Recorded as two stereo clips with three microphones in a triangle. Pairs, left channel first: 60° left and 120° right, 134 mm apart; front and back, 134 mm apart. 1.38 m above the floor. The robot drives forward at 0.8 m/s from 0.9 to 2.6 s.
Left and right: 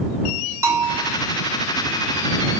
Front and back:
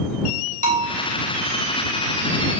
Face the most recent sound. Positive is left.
turn(degrees=175)